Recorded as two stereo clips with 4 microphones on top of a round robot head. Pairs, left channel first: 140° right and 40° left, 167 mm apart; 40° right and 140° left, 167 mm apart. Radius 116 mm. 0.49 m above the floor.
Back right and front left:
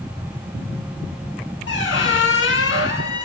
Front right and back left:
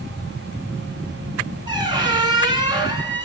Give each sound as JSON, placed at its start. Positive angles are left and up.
{"t": 1.7, "sound": "a squeak", "azimuth_deg": -155, "distance_m": 2.0}